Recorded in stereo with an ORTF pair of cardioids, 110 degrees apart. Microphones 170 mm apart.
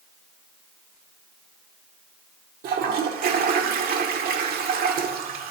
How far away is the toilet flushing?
About 0.8 m.